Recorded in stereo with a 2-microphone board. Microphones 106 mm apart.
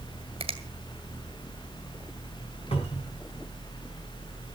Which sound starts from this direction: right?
A finger snap, at 0.4 s.